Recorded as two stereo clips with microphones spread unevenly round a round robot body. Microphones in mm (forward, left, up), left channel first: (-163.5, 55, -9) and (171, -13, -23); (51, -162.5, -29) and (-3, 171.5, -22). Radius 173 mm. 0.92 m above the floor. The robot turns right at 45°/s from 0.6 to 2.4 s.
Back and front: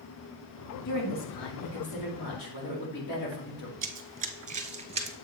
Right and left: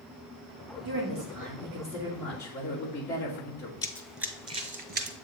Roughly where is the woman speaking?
Behind left.